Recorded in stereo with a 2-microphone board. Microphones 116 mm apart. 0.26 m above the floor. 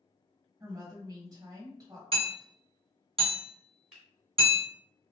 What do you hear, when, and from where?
0.6 s a woman speaking: 35° right (ahead or behind), 1.7 m
2.1 s hammering: 55° right (ahead or behind), 1.8 m
3.9 s a finger snap: 5° right (ahead or behind), 1.7 m